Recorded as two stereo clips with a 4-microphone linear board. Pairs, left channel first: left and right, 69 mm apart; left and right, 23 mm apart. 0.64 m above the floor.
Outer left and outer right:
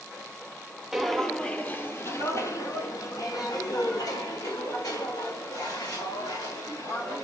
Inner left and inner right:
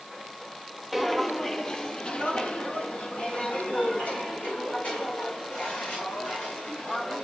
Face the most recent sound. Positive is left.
turn(degrees=80)